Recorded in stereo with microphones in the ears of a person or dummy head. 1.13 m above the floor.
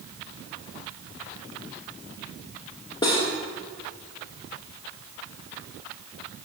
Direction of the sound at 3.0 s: 20° left (ahead or behind).